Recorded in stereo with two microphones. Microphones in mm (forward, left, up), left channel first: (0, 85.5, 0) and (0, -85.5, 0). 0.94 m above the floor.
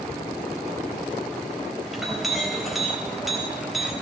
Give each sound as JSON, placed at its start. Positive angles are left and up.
{"t": 1.9, "sound": "a clink", "side_deg": 0, "distance_m": 3.5}